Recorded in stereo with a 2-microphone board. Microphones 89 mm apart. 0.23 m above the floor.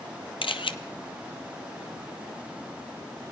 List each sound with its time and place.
0.4 s a camera shutter: 85° left, 0.9 m